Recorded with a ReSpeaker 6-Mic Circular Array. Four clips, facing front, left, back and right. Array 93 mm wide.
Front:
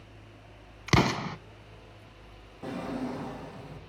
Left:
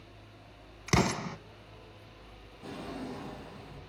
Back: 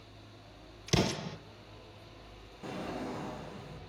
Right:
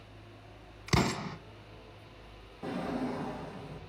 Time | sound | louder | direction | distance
0.9 | an explosion | left 2 dB, front 6 dB | 10° left | 1.0 m
2.6 | a drawer | right 6 dB, front 4 dB | 35° right | 5.5 m